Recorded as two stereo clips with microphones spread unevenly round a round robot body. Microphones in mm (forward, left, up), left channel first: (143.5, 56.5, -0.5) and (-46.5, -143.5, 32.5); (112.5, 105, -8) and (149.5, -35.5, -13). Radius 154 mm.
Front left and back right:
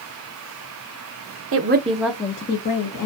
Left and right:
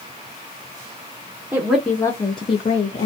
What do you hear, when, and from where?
1.5 s a woman speaking: 145° right, 0.6 m; by 3.1 s 60° left, 0.9 m